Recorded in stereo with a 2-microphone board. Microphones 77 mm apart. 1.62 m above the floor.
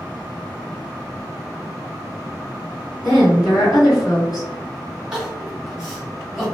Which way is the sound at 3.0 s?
50° left (ahead or behind).